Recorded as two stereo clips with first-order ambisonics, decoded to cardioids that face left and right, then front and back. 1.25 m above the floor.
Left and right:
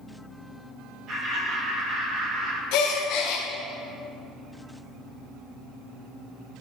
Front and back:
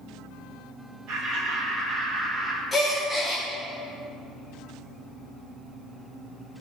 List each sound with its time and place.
1.1 s laughter: 140° right, 2.5 m; by 2.6 s 110° right, 1.9 m
2.7 s a gasp: 80° left, 1.1 m